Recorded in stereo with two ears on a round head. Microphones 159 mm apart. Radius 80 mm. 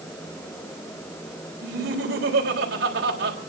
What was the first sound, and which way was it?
Laughter, 65° right (ahead or behind).